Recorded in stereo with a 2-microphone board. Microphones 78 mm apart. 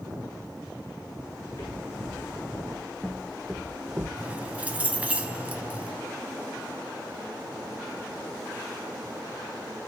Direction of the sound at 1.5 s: 40° left (ahead or behind).